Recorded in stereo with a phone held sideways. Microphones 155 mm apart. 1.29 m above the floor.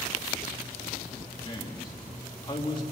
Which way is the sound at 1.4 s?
30° left (ahead or behind).